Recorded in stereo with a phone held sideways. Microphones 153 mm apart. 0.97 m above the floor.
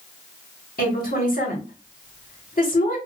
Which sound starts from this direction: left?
A woman speaking, at 0.8 s.